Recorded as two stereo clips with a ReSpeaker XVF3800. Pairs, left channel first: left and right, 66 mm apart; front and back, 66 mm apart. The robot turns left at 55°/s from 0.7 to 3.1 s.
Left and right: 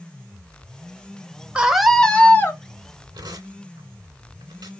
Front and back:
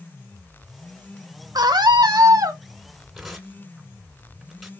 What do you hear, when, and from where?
1.6 s a scream: 160° right, 1.5 m; by 2.6 s 140° left, 1.5 m
3.1 s tearing paper: 90° right, 2.5 m